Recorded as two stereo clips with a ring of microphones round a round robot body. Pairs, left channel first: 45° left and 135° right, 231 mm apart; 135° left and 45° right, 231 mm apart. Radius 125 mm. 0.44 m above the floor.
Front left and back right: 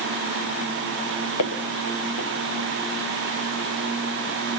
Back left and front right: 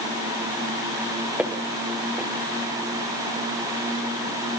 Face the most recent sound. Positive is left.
turn(degrees=40)